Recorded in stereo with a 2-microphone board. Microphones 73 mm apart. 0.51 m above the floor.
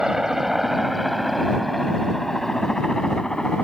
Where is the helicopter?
10° right (ahead or behind); by 3.6 s 10° left (ahead or behind).